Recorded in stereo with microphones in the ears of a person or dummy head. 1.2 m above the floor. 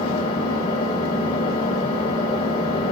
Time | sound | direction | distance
0.0 | an engine running | 25° left (ahead or behind) | 4.5 m